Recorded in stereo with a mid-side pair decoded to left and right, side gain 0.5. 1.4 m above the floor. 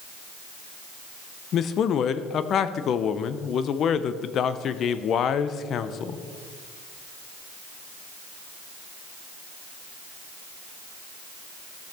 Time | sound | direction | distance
1.5 | a man speaking | 55° left | 0.7 m